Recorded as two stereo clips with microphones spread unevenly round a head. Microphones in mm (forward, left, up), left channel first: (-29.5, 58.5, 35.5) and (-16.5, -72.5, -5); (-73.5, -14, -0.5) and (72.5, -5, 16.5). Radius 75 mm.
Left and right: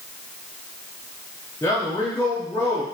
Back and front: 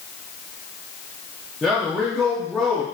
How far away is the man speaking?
About 0.6 m.